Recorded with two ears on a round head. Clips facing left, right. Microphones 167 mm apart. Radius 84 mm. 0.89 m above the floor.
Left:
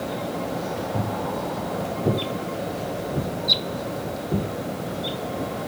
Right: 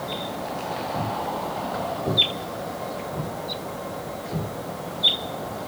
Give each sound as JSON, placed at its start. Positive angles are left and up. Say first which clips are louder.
{"t": 0.9, "sound": "footsteps", "louder": "left 1 dB", "side_deg": 45, "distance_m": 3.0}